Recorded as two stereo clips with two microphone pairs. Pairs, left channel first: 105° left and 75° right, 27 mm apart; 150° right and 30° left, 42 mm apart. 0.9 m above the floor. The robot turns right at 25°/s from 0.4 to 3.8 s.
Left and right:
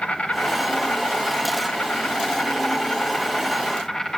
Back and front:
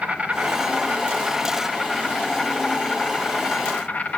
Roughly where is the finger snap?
No finger snap in this recording.